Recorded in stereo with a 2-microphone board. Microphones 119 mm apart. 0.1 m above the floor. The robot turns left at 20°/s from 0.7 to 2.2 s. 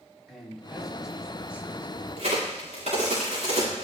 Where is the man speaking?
5° left (ahead or behind), 4.5 m; by 1.9 s 20° right (ahead or behind), 4.5 m.